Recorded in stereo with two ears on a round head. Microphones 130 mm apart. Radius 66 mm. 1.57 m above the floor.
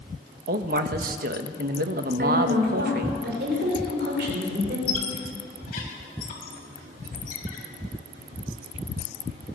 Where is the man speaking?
70° right (ahead or behind), 1.6 m.